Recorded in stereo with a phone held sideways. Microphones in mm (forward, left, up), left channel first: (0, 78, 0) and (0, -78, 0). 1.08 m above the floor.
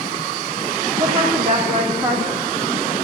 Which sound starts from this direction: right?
A woman speaking, at 1.0 s.